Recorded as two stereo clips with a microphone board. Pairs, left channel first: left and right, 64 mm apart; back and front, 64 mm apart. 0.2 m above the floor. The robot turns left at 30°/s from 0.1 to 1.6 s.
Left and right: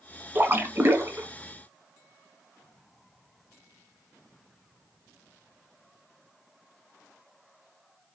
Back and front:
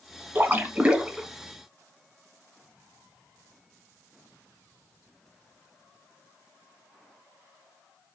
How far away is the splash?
About 0.8 m.